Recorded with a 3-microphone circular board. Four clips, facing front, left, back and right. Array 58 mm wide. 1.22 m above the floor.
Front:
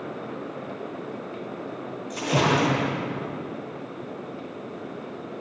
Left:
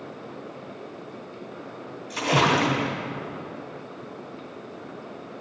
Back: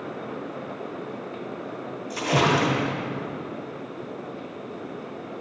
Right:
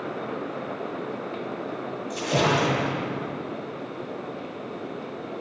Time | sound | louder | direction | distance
2.1 | a splash | left 2 dB, back 1 dB | 110° left | 2.5 m